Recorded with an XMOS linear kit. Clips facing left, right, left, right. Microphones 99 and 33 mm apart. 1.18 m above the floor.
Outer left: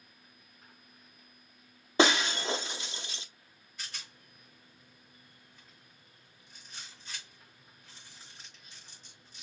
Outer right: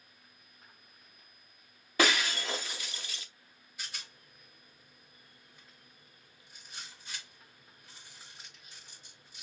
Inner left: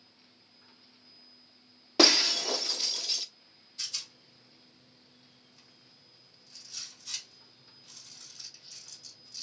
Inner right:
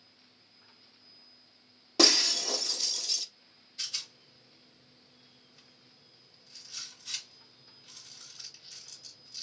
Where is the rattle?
10° right (ahead or behind), 3 m.